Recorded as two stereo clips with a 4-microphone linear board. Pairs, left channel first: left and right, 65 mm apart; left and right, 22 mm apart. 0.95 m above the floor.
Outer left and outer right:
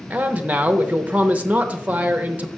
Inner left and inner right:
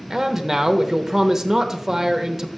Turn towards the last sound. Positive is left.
turn(degrees=-20)  # may be behind; listen again after turning